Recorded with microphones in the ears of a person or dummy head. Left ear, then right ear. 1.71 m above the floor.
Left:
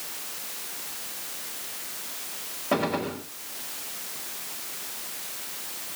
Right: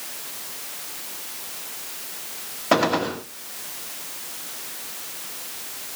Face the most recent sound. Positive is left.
turn(degrees=-65)  # may be behind; listen again after turning